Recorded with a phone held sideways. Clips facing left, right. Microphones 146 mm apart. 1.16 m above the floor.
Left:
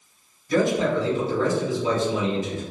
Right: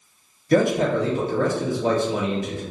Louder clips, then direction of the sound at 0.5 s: Right 2 dB; 65° right (ahead or behind).